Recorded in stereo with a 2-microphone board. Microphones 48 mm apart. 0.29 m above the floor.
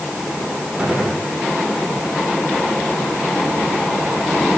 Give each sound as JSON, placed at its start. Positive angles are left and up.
{"t": 0.8, "sound": "a gunshot", "side_deg": -25, "distance_m": 7.5}